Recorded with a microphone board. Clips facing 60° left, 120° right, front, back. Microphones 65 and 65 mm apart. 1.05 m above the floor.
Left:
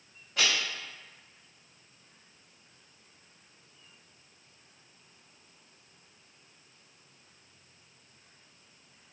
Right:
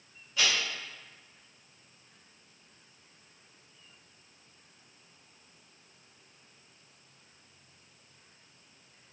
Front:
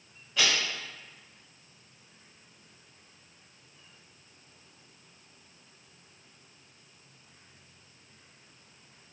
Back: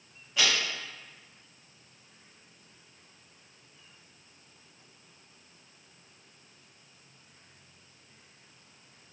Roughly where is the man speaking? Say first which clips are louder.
Left 1 dB, even; left.